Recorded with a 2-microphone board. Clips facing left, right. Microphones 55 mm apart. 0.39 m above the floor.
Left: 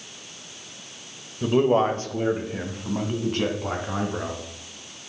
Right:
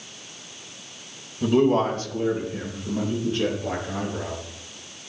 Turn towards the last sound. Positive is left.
turn(degrees=65)  # may be behind; listen again after turning